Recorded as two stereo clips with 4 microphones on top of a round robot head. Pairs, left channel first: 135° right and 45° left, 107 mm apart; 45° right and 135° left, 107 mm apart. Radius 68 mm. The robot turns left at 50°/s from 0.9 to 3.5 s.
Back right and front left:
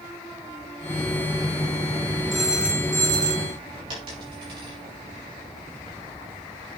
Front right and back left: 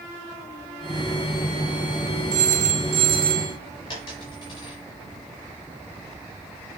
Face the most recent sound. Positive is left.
turn(degrees=5)